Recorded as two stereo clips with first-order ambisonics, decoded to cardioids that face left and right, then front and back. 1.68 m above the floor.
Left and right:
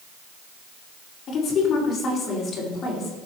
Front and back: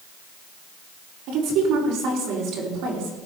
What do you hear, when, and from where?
1.3 s a woman speaking: 150° left, 4.5 m